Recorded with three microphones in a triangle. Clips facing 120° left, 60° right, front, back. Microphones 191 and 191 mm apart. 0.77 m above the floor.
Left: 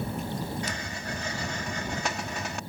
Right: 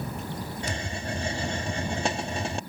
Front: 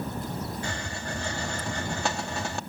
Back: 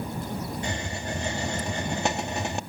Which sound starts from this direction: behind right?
A hiss, at 0.6 s.